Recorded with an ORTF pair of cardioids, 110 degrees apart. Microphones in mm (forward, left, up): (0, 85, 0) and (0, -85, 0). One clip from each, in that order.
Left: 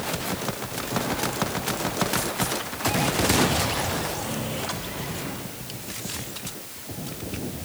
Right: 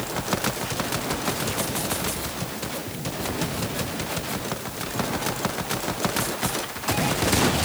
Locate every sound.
Only background noise.